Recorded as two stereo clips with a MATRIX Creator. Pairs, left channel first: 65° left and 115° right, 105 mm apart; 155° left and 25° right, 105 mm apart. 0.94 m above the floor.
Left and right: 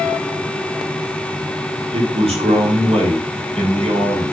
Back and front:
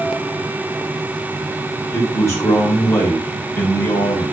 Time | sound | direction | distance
1.9 | a man speaking | 140° right | 6.5 m